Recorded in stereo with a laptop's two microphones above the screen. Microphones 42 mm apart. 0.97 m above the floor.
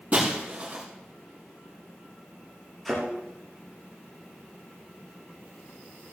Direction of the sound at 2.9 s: Centre (ahead or behind).